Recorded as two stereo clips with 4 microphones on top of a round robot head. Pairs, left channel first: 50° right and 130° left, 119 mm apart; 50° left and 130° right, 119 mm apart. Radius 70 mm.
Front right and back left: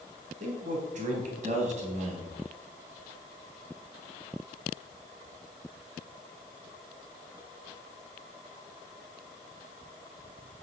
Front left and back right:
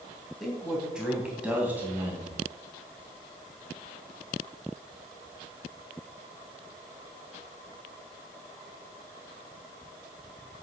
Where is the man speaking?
145° left, 3 m; by 2.4 s 160° left, 3.5 m.